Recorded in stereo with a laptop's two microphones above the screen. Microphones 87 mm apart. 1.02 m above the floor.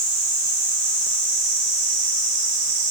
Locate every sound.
Only background noise.